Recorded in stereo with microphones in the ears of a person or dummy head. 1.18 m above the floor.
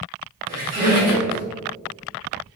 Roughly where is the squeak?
Right.